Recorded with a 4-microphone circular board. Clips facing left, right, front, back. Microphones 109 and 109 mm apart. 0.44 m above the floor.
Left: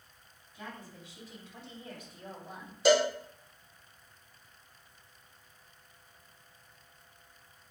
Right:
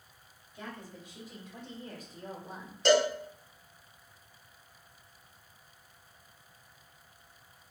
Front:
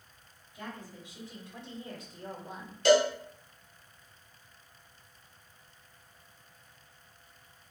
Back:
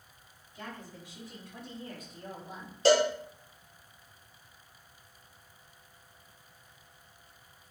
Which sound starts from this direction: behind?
A cowbell, at 2.9 s.